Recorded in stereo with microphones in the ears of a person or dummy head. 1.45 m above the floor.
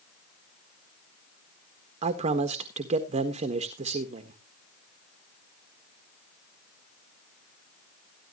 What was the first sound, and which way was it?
A man speaking, 40° right (ahead or behind).